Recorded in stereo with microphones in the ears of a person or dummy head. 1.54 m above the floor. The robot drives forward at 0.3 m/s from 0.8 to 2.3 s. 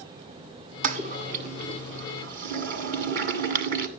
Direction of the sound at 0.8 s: 50° right (ahead or behind).